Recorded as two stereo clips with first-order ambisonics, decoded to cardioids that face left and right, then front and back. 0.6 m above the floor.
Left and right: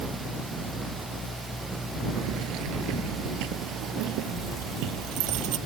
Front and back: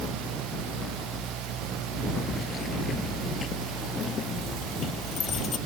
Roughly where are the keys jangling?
Ahead right.